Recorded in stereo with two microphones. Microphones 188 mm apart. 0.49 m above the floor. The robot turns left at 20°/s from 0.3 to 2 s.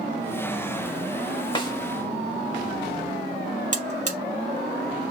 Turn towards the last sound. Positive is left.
turn(degrees=-40)  # may be behind; listen again after turning